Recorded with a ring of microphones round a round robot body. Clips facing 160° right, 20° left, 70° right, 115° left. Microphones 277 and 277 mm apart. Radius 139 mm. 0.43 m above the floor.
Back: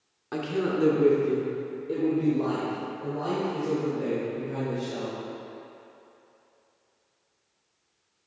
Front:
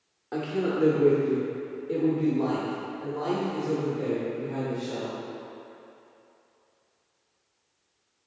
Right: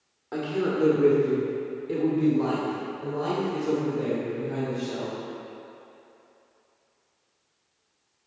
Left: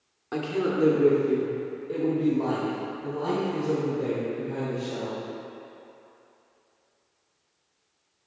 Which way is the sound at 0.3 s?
155° left.